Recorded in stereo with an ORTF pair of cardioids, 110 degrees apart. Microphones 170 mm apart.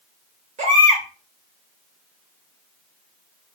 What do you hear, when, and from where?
0.6 s a baby crying: 45° right, 2.5 m